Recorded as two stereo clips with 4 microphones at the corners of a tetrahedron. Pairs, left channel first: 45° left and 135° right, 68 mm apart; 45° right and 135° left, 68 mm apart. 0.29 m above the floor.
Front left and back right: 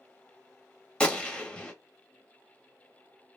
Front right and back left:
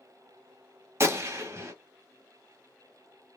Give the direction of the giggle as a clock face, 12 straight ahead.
No giggle in this recording.